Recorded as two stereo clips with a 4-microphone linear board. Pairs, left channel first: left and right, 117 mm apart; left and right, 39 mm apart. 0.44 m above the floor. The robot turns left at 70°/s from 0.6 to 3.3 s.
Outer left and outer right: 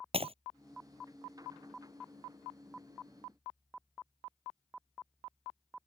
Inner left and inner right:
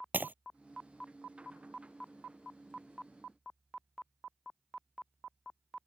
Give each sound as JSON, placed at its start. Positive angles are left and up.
{"t": 0.1, "sound": "breaking glass", "side_deg": -55}